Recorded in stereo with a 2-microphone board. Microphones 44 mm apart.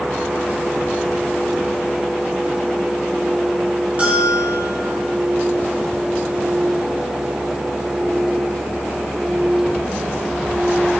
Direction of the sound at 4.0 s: 35° right (ahead or behind).